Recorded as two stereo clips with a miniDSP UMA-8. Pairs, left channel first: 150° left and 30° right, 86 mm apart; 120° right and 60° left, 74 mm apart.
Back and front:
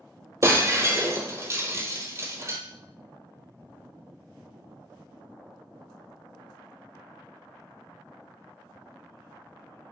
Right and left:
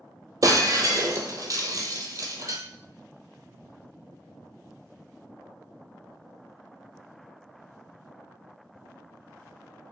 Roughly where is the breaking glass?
Ahead left.